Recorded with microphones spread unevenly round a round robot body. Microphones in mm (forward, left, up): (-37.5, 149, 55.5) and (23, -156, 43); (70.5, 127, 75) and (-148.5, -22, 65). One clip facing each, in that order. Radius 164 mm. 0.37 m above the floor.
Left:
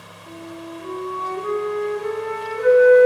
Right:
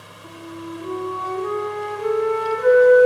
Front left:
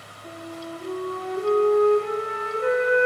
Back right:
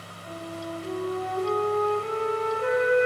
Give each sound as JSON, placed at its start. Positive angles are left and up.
{"t": 0.2, "sound": "a flute", "azimuth_deg": -40, "distance_m": 3.5}